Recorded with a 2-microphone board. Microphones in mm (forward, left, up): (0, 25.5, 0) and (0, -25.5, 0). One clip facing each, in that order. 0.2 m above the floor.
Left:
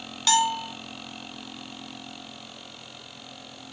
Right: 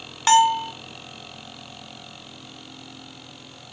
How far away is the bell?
About 0.9 m.